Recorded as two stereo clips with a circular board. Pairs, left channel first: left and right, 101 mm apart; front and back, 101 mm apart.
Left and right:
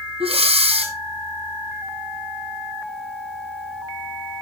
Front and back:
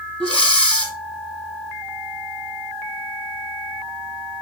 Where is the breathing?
80° right, 1.4 m.